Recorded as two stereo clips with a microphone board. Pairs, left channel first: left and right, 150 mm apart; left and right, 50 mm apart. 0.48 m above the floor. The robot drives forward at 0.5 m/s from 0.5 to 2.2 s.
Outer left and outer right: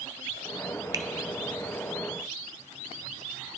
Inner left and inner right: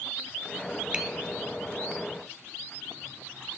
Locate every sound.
0.9 s a finger snap: 25° right (ahead or behind), 0.6 m